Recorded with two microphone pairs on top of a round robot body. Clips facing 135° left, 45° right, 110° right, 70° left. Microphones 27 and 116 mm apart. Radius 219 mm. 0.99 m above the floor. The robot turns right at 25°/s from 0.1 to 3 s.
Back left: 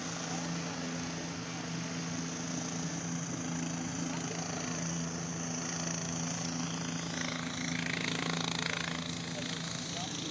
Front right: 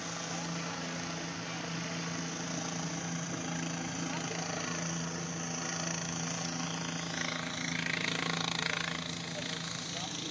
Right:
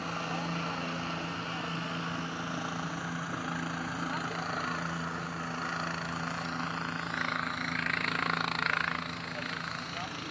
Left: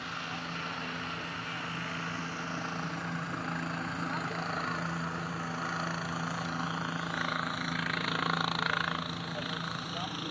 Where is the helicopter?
110° right; by 10.3 s 20° left.